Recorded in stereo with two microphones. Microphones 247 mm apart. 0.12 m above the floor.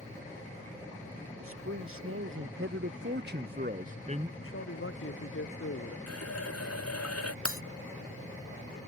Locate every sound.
1.4 s a man speaking: 65° right (ahead or behind); by 4.3 s 25° right (ahead or behind)
4.4 s a man speaking: 60° left (ahead or behind)
6.1 s a running tap: 80° left
7.5 s breaking glass: 60° right (ahead or behind)